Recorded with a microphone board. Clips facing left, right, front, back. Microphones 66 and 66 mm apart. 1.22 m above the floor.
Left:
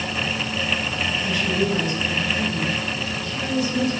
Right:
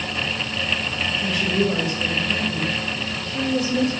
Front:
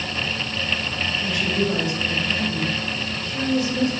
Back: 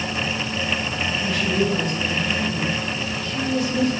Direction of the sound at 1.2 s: 85° right.